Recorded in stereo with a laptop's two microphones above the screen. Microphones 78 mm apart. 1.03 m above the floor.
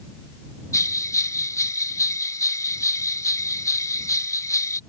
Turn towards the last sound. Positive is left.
turn(degrees=40)  # may be behind; listen again after turning